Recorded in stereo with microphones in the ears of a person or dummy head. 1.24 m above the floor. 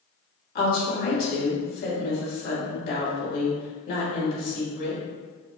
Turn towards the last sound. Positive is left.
turn(degrees=50)  # may be behind; listen again after turning